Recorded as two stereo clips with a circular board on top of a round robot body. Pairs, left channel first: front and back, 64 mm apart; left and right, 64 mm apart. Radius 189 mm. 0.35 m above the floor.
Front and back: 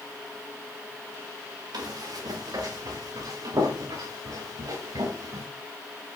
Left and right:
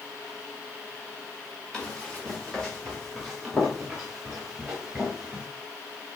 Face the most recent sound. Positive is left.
turn(degrees=-170)